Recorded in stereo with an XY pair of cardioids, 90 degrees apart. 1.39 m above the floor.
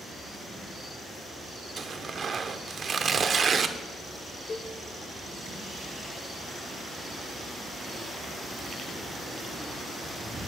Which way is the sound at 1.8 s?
50° right.